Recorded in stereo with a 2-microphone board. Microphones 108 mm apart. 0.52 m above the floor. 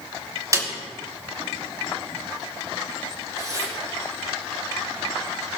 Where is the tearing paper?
35° right (ahead or behind), 6 m.